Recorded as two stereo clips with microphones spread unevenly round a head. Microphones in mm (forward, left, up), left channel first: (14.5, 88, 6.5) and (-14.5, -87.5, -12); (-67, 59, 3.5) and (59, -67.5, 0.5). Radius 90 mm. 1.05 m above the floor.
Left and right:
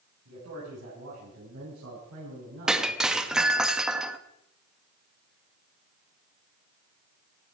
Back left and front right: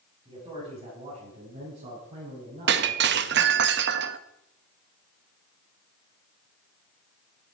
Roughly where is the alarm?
No alarm in this recording.